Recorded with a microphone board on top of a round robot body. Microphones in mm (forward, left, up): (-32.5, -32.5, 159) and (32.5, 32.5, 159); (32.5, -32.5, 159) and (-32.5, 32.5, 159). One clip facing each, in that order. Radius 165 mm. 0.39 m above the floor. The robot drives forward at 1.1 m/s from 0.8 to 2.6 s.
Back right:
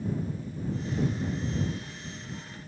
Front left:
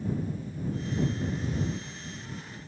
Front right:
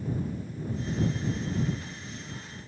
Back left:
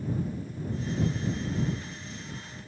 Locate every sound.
Only background noise.